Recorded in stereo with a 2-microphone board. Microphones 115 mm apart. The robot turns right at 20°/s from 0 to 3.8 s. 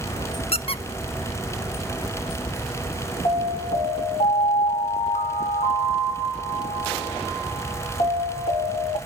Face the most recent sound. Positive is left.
turn(degrees=80)